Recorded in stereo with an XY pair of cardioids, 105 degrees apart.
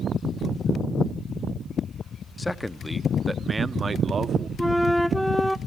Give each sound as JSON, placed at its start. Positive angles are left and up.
{"t": 2.4, "sound": "a man speaking", "azimuth_deg": 20, "distance_m": 0.9}
{"t": 4.6, "sound": "a flute", "azimuth_deg": 5, "distance_m": 0.5}